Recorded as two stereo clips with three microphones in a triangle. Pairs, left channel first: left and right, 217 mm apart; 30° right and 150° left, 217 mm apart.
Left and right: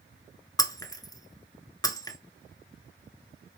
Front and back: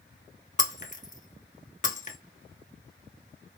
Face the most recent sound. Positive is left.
turn(degrees=20)